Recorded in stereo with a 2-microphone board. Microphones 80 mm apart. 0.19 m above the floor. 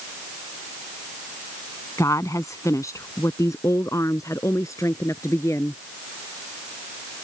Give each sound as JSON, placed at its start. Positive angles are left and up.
{"t": 2.0, "sound": "a woman speaking", "side_deg": 40}